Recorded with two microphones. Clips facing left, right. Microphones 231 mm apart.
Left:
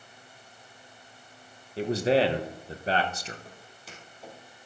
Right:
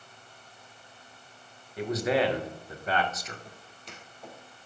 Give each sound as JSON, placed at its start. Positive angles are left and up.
{"t": 1.8, "sound": "a man speaking", "side_deg": 30, "distance_m": 1.2}
{"t": 3.5, "sound": "footsteps", "side_deg": 5, "distance_m": 3.5}